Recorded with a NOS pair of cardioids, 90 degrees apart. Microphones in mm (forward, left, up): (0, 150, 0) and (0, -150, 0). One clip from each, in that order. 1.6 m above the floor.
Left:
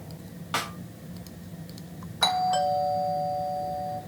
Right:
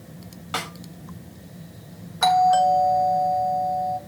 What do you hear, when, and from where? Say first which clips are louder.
0.5 s a snare drum: right 1 dB; 5° right, 5.5 m
2.2 s a doorbell: right 7 dB; 5° right, 3.5 m